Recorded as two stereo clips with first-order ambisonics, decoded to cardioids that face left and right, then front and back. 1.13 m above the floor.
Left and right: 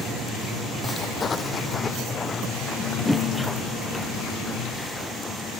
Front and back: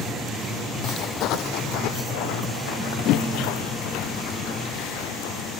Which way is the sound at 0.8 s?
30° left.